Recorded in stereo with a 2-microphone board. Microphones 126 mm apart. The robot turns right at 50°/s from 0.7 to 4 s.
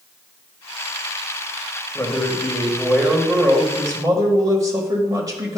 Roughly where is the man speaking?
Behind left.